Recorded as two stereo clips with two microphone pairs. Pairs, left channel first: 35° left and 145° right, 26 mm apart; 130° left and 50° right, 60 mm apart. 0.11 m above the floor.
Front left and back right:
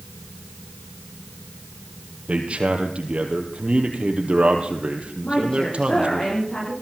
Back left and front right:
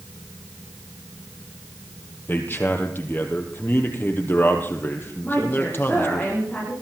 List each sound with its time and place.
2.3 s a man speaking: straight behind, 3.5 m
5.2 s a woman speaking: 65° left, 9.5 m